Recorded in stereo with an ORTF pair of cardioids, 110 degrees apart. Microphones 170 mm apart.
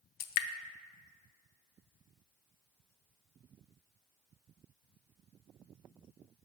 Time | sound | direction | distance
0.2 | dripping | 65° left | 0.5 m